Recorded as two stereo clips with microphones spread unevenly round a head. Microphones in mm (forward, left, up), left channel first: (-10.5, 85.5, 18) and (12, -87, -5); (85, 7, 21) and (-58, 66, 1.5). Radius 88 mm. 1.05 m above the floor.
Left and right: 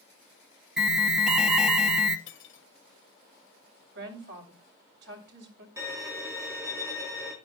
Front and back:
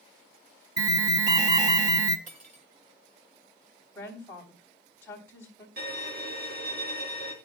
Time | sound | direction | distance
0.8 | an alarm | 160° right | 1.3 m
2.3 | cutlery clinking | 120° left | 2.5 m
4.0 | a woman speaking | 100° right | 3.5 m
5.8 | a violin | 160° right | 3.5 m